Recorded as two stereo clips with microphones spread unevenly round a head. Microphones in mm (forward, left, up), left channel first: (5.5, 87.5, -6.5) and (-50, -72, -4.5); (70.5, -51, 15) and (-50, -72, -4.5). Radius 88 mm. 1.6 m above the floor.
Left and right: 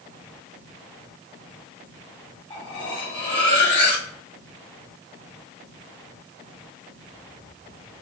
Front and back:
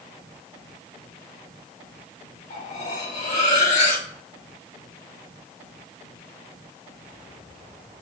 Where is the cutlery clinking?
10° left, 2.5 m.